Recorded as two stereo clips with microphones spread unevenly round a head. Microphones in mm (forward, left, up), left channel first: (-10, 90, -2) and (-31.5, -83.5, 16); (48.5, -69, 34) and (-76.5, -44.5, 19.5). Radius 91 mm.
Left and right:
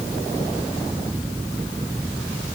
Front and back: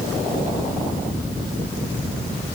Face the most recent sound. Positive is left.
No sound to turn to.